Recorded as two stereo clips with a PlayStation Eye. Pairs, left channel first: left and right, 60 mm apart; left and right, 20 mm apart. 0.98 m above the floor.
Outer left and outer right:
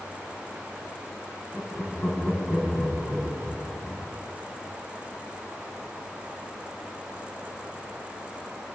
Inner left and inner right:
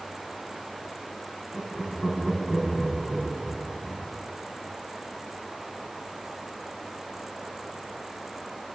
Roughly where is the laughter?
Left.